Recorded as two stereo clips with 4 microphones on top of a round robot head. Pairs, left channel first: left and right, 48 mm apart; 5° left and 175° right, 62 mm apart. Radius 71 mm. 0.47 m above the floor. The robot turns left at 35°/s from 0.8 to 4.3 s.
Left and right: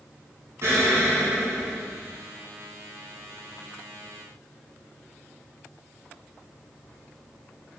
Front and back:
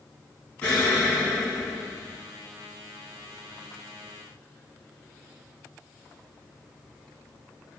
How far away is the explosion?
About 1.6 m.